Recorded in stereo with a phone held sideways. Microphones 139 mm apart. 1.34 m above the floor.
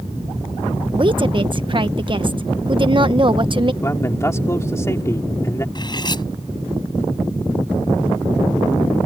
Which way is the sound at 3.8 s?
20° left (ahead or behind).